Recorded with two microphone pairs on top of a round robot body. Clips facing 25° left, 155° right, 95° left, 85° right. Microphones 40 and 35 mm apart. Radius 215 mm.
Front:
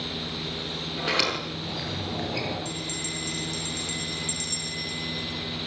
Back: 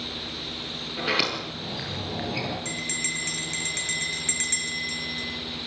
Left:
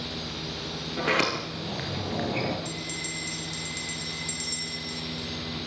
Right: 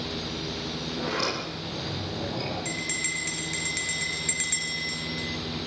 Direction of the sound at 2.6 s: 115° right.